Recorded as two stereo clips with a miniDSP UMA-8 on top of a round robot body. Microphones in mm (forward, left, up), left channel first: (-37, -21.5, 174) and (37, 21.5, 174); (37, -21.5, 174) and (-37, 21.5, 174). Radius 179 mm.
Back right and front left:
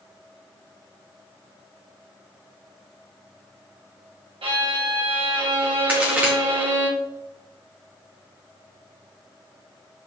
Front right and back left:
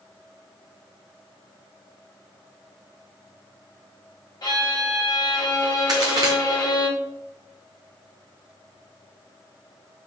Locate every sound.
4.4 s a violin: 15° left, 1.5 m
5.9 s a crack: 105° left, 1.0 m